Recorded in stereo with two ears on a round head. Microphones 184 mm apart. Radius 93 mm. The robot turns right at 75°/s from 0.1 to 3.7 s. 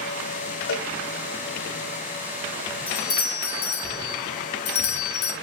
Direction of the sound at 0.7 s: 65° left (ahead or behind).